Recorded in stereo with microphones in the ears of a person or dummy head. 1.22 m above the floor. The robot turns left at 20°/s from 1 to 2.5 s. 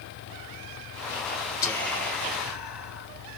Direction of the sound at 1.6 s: 15° left (ahead or behind).